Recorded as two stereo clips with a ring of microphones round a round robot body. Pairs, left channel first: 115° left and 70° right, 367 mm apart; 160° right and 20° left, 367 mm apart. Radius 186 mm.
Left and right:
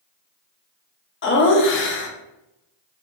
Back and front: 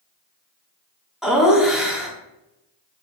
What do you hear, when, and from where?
1.2 s laughter: 110° left, 0.6 m